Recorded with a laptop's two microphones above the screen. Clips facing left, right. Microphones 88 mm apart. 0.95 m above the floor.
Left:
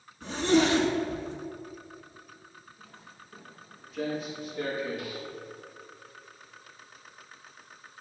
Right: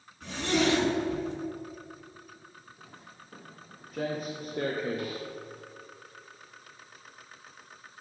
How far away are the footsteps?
About 2.5 m.